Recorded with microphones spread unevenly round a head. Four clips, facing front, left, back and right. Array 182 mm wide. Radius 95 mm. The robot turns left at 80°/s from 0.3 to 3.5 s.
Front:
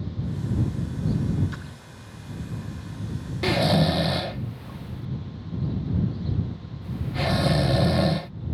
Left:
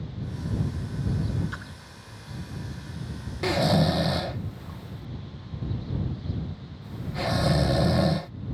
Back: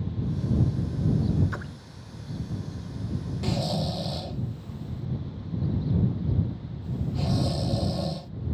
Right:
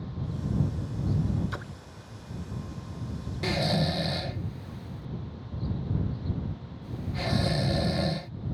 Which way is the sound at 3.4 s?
35° left.